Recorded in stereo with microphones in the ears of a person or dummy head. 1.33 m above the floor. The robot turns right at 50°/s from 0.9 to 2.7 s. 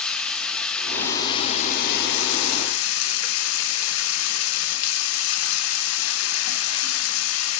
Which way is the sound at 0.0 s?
5° left.